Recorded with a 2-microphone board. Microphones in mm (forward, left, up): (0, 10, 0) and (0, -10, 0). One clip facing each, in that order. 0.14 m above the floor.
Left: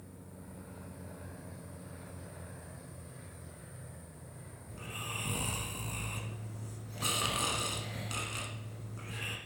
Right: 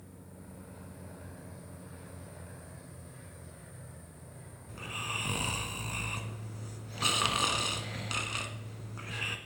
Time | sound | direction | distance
4.7 | snoring | 25° right (ahead or behind) | 1.0 m